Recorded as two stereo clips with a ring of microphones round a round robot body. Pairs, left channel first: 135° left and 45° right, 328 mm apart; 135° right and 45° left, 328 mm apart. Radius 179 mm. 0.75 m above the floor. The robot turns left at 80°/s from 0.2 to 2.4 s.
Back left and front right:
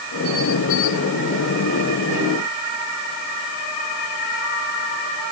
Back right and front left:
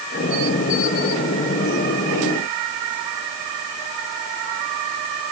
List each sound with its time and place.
Only background noise.